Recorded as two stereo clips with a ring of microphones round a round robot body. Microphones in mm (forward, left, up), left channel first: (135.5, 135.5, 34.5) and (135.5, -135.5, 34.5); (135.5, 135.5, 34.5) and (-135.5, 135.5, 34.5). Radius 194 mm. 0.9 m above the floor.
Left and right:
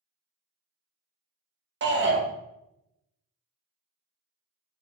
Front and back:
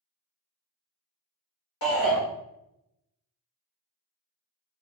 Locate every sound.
1.8 s a shout: 45° right, 1.0 m